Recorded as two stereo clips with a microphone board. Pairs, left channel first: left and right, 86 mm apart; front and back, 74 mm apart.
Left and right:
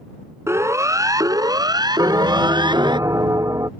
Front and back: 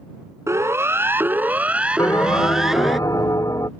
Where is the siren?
140° right; by 3.0 s 90° right.